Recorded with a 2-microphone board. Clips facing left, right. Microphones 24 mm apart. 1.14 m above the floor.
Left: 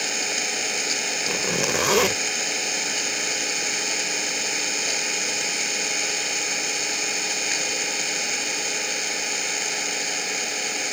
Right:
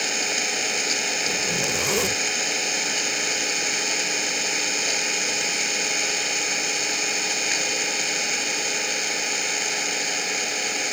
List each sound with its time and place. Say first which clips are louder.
0.0 s an engine running: right 1 dB; 5° right (ahead or behind)
1.3 s a zipper: even; 45° left (ahead or behind)